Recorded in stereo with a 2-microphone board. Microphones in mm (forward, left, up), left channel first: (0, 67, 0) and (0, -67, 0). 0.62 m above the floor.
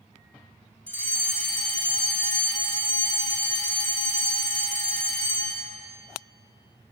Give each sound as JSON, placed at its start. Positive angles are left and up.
{"t": 0.9, "sound": "a fire alarm", "side_deg": 5, "distance_m": 3.0}